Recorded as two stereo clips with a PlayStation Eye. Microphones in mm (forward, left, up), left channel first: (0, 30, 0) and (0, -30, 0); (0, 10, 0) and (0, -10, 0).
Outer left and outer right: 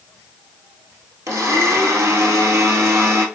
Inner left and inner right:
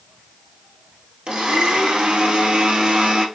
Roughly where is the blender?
Right.